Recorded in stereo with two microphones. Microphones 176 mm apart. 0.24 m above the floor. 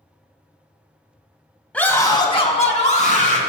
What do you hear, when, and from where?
1.7 s a scream: 10° left (ahead or behind), 1.2 m; by 3.4 s 50° left (ahead or behind), 2.5 m